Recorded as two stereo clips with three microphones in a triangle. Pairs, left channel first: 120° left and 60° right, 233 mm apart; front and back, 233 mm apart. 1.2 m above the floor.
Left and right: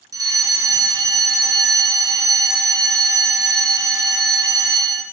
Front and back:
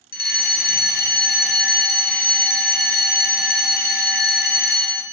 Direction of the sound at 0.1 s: 5° left.